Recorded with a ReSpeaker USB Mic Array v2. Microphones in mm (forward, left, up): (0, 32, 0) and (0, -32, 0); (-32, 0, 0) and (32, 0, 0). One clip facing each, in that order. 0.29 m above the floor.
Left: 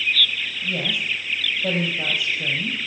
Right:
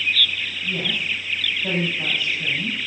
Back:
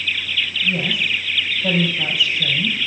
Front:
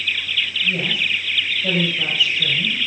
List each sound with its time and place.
0.6 s a woman speaking: 95° left, 6 m